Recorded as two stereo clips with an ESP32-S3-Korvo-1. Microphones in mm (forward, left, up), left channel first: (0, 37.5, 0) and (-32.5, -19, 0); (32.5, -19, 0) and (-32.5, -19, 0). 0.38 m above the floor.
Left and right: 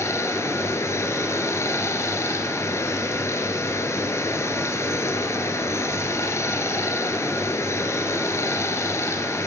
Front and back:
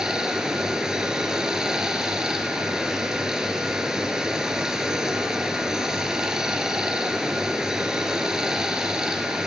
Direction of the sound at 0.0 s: 100° left.